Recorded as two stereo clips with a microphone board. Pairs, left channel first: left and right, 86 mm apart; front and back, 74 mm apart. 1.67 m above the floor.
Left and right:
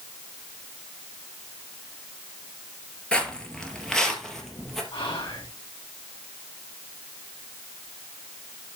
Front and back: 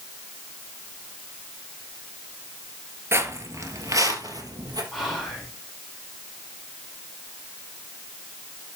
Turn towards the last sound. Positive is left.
turn(degrees=90)